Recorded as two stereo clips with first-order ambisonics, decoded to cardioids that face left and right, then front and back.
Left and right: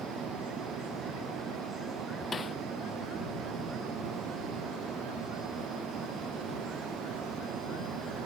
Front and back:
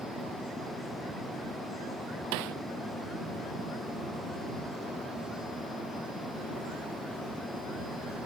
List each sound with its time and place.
2.3 s a snare drum: 165° left